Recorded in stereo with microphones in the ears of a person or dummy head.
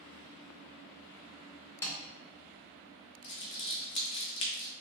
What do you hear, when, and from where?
1.8 s a snare drum: 15° left (ahead or behind), 0.8 m
3.2 s crumpling: 25° left (ahead or behind), 0.8 m